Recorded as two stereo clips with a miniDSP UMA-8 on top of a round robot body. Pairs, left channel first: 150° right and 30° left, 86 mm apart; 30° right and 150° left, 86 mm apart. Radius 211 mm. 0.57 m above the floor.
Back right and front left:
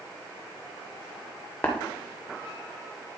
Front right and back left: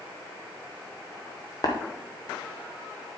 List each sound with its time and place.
1.6 s tapping: 75° right, 0.6 m